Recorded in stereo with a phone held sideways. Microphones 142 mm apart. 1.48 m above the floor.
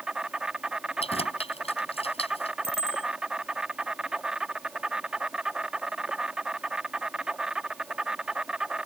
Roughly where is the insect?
Centre.